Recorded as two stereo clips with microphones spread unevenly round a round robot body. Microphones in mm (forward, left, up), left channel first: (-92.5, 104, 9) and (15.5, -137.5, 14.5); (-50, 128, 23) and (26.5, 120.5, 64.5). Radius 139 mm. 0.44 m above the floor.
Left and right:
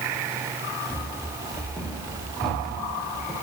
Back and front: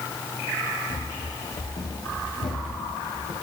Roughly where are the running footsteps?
Behind.